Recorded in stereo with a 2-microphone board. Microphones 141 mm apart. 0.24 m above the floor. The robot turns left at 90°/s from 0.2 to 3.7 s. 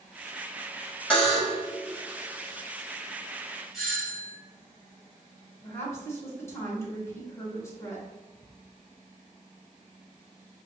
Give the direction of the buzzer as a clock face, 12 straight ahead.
12 o'clock.